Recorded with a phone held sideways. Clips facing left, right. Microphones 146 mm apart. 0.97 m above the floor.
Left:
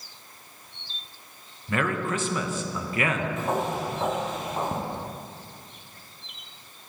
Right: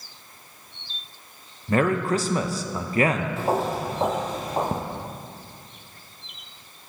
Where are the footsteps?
35° right (ahead or behind), 1.3 m.